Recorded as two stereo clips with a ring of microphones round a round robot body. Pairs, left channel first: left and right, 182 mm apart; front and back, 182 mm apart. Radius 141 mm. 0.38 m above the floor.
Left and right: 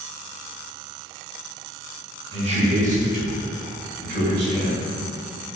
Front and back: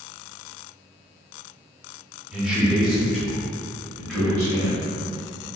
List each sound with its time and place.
2.3 s a man speaking: 100° right, 1.0 m; by 5.5 s 85° right, 2.5 m